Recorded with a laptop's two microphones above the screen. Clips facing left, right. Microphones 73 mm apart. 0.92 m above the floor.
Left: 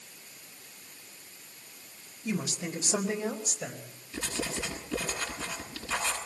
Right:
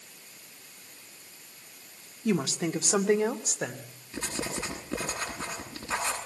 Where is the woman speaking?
75° right (ahead or behind), 1.9 m; by 3.9 s 65° right (ahead or behind), 3 m.